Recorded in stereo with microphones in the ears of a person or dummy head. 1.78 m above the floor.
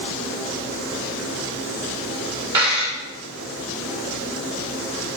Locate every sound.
2.5 s a dropped coin: 10° right (ahead or behind), 1.2 m